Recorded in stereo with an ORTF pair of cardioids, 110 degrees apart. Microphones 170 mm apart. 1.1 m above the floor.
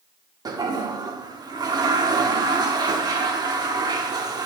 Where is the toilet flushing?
25° right, 1.3 m.